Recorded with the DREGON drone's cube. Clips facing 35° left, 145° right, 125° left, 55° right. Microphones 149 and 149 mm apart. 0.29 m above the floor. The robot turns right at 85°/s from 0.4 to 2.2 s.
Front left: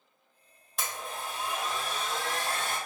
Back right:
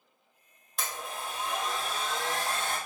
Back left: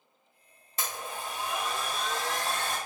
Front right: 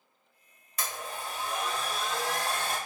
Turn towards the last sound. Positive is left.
turn(degrees=-120)